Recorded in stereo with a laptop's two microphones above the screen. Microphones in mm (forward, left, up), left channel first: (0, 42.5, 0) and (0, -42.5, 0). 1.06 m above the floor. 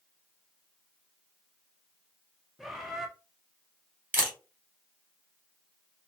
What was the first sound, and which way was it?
A bird, 5° right (ahead or behind).